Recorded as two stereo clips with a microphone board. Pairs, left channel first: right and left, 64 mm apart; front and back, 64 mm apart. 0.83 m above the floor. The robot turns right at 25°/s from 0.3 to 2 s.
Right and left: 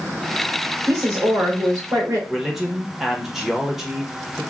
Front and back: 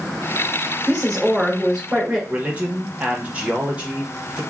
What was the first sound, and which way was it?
A woman speaking, 85° left.